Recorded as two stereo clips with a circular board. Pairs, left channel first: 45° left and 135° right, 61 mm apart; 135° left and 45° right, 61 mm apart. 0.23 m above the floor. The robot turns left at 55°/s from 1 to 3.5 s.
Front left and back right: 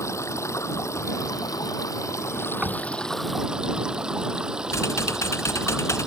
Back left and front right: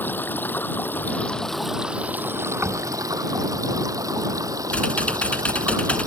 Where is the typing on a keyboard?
70° left.